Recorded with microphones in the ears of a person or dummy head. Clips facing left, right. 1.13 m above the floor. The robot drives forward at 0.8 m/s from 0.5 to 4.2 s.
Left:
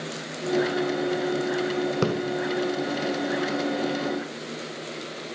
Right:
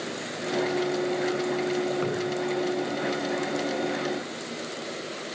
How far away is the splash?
About 1.0 m.